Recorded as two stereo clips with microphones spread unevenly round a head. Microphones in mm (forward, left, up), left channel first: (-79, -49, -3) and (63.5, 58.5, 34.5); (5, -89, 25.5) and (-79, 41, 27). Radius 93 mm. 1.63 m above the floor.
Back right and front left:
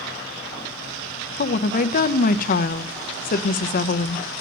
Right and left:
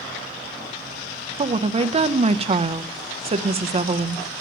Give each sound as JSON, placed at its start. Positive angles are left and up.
{"t": 1.4, "sound": "a woman speaking", "azimuth_deg": 175, "distance_m": 0.7}